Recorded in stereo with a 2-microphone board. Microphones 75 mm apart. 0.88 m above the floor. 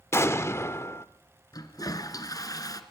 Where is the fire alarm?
I don't hear a fire alarm.